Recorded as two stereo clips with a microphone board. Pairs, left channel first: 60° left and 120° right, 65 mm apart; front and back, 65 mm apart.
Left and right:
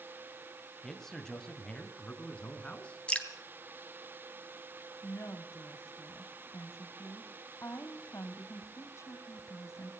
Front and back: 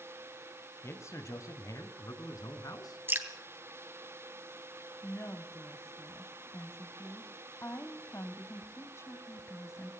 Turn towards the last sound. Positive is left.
turn(degrees=30)